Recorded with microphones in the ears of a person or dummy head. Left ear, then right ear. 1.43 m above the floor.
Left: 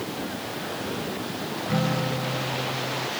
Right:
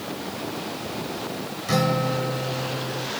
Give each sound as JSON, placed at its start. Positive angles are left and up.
{"t": 1.7, "sound": "a guitar", "side_deg": -60}